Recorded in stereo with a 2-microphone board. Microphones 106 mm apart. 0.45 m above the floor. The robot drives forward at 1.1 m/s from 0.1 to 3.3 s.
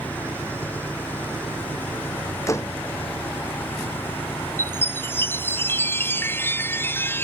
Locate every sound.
0.0 s an engine running: 15° left (ahead or behind); by 7.2 s 20° left (ahead or behind)
2.5 s a door slam: 30° left (ahead or behind)
4.6 s a chime: 20° left (ahead or behind)